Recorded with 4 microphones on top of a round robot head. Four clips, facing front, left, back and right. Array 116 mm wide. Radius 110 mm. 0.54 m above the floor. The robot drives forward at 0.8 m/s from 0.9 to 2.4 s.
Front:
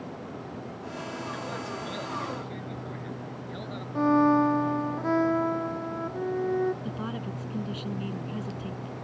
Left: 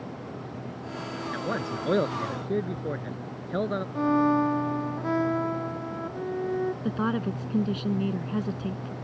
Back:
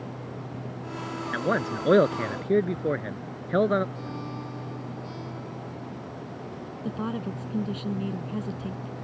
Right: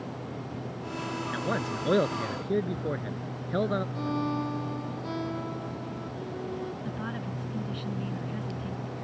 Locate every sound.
1.3 s a man speaking: 175° left
4.0 s a violin: 35° left
6.8 s a woman speaking: 110° left